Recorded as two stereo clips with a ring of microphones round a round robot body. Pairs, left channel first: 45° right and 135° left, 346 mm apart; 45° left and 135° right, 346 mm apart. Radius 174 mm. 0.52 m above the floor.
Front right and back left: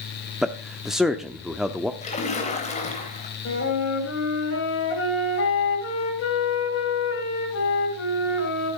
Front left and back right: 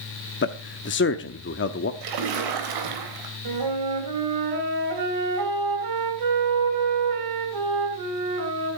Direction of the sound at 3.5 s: 100° right.